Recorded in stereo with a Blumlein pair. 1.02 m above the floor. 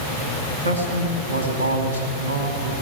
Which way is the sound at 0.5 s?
65° right.